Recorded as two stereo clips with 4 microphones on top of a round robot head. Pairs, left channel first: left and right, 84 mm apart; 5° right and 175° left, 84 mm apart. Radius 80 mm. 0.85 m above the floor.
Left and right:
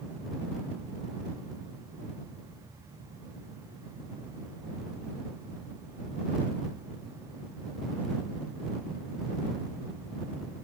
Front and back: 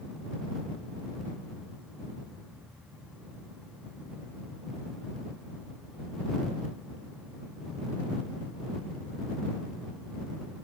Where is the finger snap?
I don't hear a finger snap.